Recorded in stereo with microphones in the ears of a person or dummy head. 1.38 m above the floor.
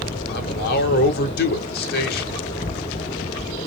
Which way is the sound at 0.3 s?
50° left (ahead or behind).